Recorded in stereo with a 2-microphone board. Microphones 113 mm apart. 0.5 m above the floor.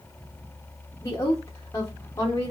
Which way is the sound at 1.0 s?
30° left (ahead or behind).